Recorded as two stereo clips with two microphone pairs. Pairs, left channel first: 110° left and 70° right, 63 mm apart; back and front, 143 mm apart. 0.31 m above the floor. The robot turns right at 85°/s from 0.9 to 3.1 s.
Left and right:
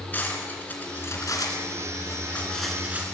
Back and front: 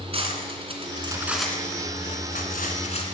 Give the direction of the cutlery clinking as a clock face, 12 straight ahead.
10 o'clock.